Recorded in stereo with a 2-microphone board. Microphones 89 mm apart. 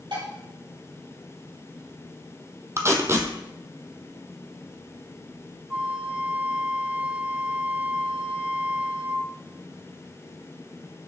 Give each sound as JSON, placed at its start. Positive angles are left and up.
{"t": 0.1, "sound": "dishes clattering", "side_deg": -65, "distance_m": 2.0}
{"t": 2.8, "sound": "tape being pulled", "side_deg": -30, "distance_m": 0.8}
{"t": 5.7, "sound": "a flute", "side_deg": -15, "distance_m": 0.7}